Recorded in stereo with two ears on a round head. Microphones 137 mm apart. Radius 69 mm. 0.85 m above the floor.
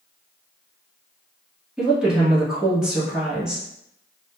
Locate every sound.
1.8 s a woman speaking: 5° right (ahead or behind), 1.1 m